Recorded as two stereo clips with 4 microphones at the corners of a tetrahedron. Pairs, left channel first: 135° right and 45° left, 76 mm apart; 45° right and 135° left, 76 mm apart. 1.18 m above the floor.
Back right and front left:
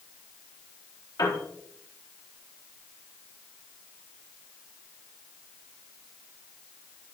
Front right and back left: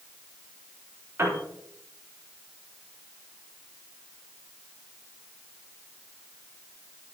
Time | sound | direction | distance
1.2 | a piano | 165° right | 4 m